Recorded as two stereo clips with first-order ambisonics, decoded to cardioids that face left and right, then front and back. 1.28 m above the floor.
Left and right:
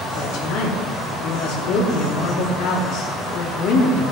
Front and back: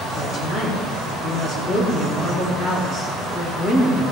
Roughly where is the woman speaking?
Ahead left.